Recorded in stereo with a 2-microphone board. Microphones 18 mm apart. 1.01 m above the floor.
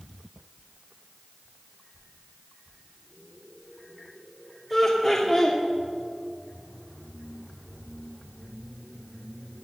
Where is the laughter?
5° left (ahead or behind), 2.5 m.